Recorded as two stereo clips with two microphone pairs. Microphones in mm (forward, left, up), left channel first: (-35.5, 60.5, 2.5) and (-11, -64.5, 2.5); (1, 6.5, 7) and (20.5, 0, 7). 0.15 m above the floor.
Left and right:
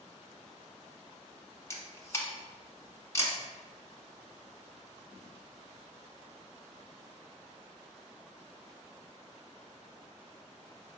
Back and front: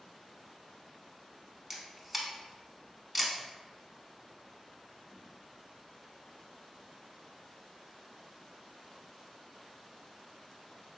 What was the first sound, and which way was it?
A camera shutter, 60° left.